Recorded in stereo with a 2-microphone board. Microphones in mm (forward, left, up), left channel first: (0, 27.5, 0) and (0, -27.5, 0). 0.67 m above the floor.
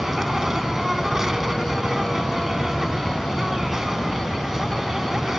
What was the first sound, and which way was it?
An insect, 10° right (ahead or behind).